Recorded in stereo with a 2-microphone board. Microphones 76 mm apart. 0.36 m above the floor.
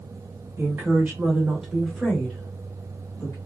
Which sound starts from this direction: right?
A woman speaking, at 0.6 s.